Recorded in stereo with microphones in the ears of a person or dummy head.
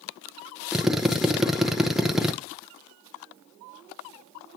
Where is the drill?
Centre (ahead or behind), 0.5 m.